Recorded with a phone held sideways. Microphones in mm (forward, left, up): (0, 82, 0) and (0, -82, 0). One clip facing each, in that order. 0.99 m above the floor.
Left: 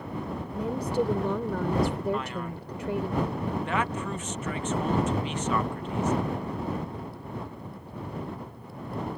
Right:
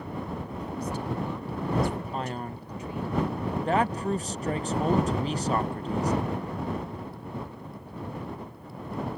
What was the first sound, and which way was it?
A woman speaking, 80° left.